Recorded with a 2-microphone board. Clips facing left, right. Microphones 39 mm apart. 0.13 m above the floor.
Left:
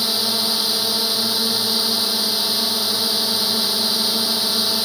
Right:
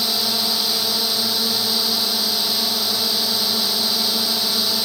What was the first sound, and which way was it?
A drone, 5° left (ahead or behind).